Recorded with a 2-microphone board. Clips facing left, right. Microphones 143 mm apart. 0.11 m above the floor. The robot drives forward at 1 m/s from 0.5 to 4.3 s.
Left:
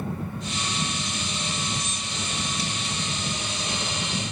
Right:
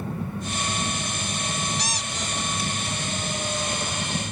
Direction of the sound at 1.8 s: 80° right.